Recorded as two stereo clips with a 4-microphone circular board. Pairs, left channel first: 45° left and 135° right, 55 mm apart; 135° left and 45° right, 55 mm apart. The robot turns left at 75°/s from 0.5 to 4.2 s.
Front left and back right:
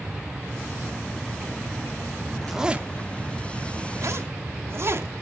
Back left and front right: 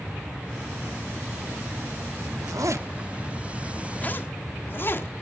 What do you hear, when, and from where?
2.4 s a zipper: 40° right, 1.1 m; by 5.2 s 175° right, 1.1 m